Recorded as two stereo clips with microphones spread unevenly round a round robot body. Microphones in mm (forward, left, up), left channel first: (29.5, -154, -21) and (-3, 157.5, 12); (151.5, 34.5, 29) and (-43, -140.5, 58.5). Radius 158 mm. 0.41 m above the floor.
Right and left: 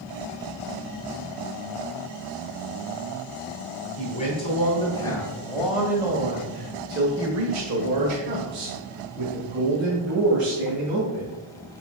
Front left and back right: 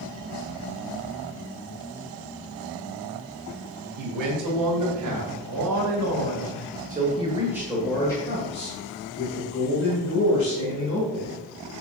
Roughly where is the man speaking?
Behind right.